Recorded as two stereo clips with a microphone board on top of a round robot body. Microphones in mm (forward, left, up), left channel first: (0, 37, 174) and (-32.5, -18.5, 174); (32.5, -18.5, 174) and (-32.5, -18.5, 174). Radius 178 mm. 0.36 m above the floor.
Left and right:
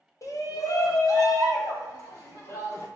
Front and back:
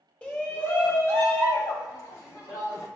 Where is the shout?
65° left, 1.5 m; by 2.9 s 40° left, 4 m.